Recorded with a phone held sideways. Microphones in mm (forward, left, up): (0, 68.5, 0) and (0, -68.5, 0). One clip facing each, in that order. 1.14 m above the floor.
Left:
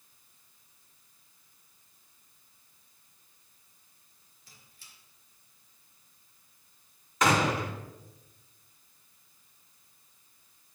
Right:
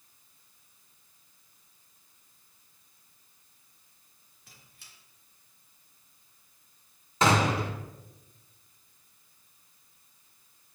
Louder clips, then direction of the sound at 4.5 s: Right 1 dB; 65° right (ahead or behind).